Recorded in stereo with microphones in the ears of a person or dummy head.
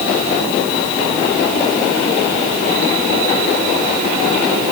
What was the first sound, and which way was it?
Only background noise.